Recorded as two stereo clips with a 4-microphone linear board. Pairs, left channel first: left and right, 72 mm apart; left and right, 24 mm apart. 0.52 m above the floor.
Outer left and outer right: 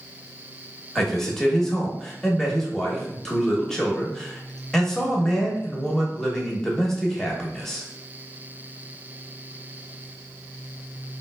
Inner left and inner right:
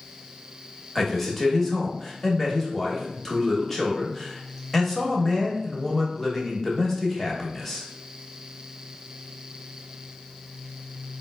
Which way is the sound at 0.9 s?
5° left (ahead or behind).